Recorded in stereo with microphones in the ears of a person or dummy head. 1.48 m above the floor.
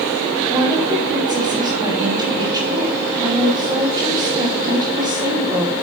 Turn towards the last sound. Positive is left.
turn(degrees=-20)  # may be behind; listen again after turning